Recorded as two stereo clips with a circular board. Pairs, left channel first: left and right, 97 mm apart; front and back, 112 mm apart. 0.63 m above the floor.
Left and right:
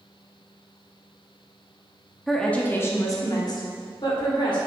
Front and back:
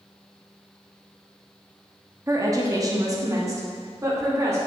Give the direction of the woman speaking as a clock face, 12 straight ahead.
6 o'clock.